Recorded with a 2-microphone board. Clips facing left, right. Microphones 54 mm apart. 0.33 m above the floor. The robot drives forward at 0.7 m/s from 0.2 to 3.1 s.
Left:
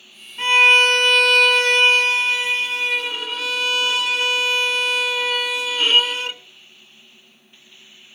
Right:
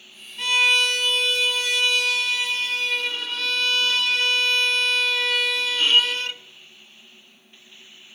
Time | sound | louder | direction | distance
0.4 | a violin | left 6 dB | 30° left (ahead or behind) | 0.8 m